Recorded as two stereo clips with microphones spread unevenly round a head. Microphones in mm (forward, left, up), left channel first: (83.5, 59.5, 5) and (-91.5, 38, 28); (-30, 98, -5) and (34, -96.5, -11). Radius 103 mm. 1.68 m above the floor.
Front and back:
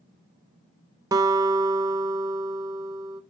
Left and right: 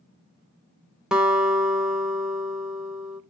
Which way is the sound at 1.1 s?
160° right.